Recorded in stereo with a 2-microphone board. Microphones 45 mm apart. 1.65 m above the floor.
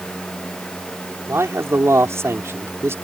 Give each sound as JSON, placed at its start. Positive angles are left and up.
{"t": 1.3, "sound": "a man speaking", "side_deg": -80}